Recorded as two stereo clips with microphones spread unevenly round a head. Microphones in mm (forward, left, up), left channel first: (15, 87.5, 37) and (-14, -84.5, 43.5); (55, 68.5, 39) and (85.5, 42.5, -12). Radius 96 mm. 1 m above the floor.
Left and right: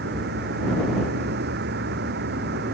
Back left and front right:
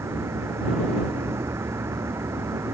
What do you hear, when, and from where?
0.0 s a vehicle: 70° right